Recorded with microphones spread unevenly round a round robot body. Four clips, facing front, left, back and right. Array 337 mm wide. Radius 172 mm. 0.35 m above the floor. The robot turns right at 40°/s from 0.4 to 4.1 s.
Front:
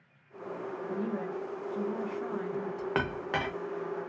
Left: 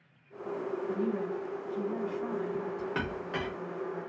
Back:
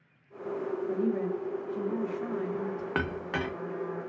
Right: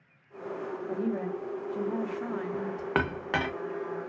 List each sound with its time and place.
0.9 s a woman speaking: 150° right, 1.1 m; by 2.9 s 70° right, 1.1 m
3.0 s a clink: 110° right, 0.7 m; by 3.5 s 90° right, 0.7 m